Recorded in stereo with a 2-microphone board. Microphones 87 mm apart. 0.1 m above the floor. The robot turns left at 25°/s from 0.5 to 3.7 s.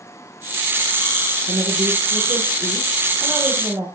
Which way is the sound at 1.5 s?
100° right.